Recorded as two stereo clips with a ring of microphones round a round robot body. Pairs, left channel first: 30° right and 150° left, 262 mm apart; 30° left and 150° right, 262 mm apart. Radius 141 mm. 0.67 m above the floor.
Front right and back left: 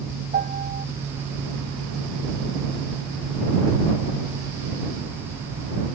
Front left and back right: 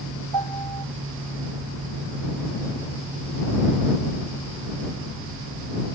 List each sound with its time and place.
0.3 s a piano: 150° right